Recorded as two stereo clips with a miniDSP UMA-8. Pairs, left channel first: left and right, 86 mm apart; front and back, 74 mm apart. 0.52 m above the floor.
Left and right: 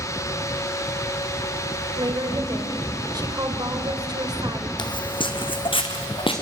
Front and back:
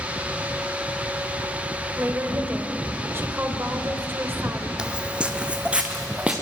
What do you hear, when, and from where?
2.0 s a woman speaking: 125° right, 2 m
4.8 s footsteps: 105° left, 0.9 m